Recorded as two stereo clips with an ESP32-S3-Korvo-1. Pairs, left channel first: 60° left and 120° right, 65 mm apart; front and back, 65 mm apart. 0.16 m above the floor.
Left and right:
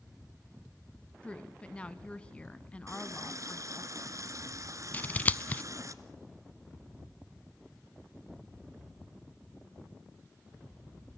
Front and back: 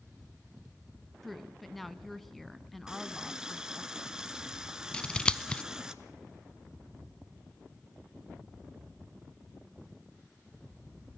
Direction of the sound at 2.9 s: 100° right.